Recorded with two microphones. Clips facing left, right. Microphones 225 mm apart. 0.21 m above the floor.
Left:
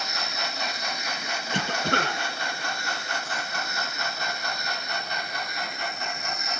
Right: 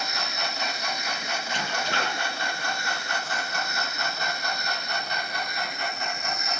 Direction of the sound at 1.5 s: 55° left (ahead or behind).